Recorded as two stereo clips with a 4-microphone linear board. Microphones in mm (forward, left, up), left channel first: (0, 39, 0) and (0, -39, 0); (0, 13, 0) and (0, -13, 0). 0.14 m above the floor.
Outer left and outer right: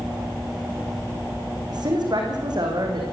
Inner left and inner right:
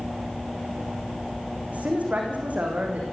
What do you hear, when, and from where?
1.7 s a woman speaking: 55° right (ahead or behind), 7 m